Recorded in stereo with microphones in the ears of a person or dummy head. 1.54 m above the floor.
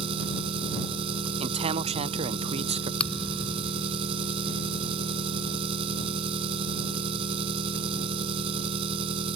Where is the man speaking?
30° right (ahead or behind).